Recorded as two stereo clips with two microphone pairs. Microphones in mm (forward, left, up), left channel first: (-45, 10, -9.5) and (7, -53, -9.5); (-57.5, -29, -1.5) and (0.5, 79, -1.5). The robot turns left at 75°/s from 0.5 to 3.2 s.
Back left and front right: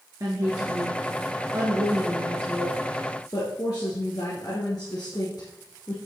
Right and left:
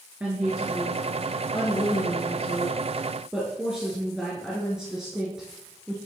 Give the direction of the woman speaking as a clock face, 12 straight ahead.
12 o'clock.